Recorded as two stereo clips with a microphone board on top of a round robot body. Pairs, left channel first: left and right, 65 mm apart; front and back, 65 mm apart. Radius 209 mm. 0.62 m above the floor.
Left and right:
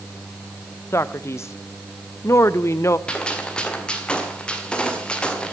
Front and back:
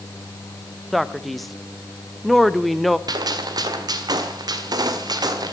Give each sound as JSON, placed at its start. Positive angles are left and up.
{"t": 0.9, "sound": "a man speaking", "azimuth_deg": 90, "distance_m": 0.9}
{"t": 3.1, "sound": "a gunshot", "azimuth_deg": 165, "distance_m": 1.7}